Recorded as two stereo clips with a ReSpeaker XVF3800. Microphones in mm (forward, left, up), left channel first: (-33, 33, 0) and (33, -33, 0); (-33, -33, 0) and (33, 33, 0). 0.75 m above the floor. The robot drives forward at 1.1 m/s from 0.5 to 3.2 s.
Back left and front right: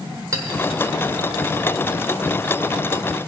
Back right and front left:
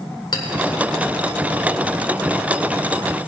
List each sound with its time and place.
0.3 s a clink: 95° right, 1.5 m